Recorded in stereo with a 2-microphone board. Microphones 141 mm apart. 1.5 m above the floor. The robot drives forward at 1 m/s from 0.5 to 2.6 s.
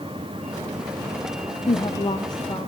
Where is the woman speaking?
55° left (ahead or behind), 0.7 m; by 2.7 s 20° left (ahead or behind), 1.4 m.